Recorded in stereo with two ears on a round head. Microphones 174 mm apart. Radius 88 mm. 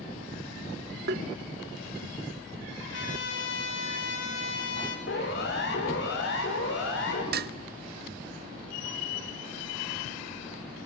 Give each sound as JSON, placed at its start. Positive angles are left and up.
{"t": 1.1, "sound": "tapping", "side_deg": -55, "distance_m": 1.2}
{"t": 2.9, "sound": "a trumpet", "side_deg": 60, "distance_m": 5.5}
{"t": 5.1, "sound": "a siren", "side_deg": 55, "distance_m": 6.5}
{"t": 7.3, "sound": "dishes clattering", "side_deg": -50, "distance_m": 0.7}